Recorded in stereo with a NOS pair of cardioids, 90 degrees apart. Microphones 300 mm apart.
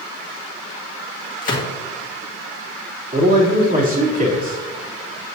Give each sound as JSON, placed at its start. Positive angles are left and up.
{"t": 1.4, "sound": "a gunshot", "azimuth_deg": 25, "distance_m": 2.0}
{"t": 3.1, "sound": "a man speaking", "azimuth_deg": -30, "distance_m": 3.0}